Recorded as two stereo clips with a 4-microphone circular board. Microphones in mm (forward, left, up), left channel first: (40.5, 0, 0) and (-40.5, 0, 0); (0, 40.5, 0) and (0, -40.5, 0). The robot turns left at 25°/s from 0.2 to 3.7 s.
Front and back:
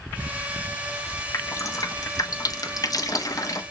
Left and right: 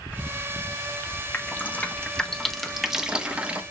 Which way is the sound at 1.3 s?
35° left.